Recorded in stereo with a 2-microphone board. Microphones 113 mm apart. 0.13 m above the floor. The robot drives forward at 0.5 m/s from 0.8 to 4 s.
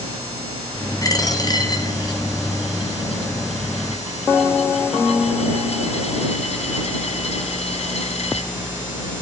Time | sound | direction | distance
1.0 | a dropped coin | 30° left (ahead or behind) | 2 m